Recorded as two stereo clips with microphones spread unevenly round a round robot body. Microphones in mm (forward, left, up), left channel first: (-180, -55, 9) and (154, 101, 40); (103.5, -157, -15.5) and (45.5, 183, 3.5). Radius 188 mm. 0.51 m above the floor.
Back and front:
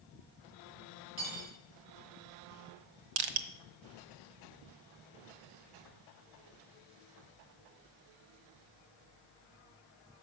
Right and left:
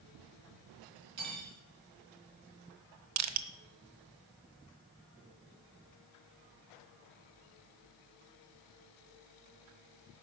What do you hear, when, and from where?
1.2 s cutlery clinking: 60° left, 4 m
3.2 s crushing: 55° left, 1.0 m